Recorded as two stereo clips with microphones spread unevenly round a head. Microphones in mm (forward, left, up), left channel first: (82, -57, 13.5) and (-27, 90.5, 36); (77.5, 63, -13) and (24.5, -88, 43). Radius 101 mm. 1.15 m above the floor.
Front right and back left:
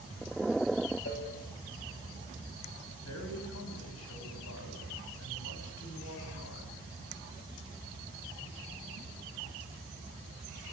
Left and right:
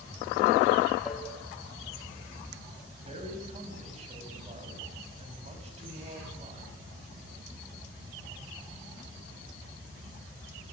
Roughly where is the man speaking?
Ahead right.